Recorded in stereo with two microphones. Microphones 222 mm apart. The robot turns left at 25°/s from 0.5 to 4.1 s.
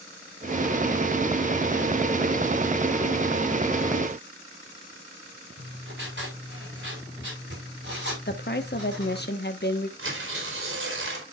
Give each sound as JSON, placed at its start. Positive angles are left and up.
{"t": 5.6, "sound": "writing", "side_deg": -55, "distance_m": 4.5}
{"t": 8.3, "sound": "a woman speaking", "side_deg": 50, "distance_m": 1.2}
{"t": 10.0, "sound": "tearing paper", "side_deg": -60, "distance_m": 4.0}